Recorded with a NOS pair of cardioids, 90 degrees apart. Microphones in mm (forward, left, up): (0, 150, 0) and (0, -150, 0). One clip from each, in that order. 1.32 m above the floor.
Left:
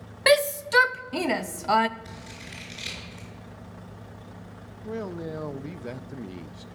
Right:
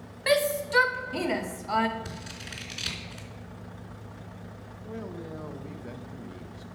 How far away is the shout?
About 0.6 m.